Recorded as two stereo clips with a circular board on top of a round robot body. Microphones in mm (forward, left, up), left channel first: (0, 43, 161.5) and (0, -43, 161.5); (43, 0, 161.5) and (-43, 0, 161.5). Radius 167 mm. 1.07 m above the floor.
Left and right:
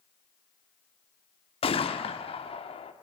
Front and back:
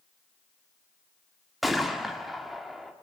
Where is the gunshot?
90° left, 1.8 m.